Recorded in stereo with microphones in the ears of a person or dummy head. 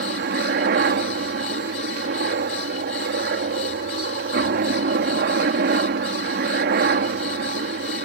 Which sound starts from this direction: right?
A helicopter, at 0.0 s.